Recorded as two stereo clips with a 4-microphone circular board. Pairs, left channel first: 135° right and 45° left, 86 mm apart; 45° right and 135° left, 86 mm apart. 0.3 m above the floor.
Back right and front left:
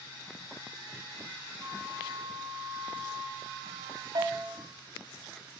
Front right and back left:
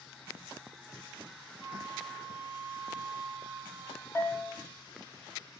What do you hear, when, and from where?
1.6 s a flute: 35° right, 4.5 m
4.2 s a bell: 10° left, 2.5 m